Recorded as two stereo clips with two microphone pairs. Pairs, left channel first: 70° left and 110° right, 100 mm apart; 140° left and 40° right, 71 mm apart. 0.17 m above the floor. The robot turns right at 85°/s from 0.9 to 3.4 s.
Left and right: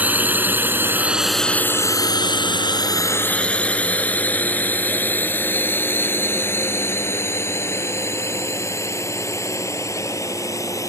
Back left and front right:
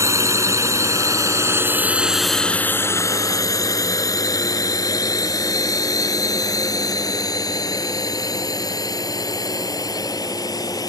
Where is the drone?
45° right; by 10.9 s 125° left.